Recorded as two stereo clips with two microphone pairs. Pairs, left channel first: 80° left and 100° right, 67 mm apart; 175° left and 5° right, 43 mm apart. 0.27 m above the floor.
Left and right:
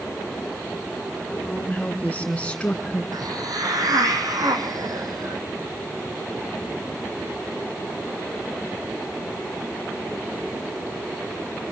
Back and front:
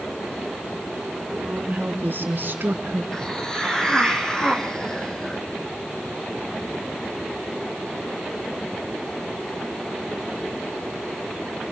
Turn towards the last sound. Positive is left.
turn(degrees=-115)